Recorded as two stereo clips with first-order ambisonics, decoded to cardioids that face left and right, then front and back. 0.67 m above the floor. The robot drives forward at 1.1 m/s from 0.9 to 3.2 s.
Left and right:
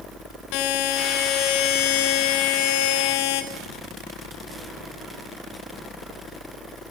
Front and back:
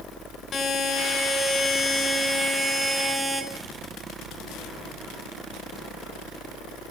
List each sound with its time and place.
0.5 s a buzzer: 65° left, 4.5 m; by 3.4 s 100° left, 4.5 m